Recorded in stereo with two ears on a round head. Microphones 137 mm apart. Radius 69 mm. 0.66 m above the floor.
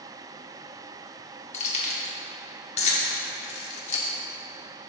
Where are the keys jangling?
45° left (ahead or behind), 1.0 m.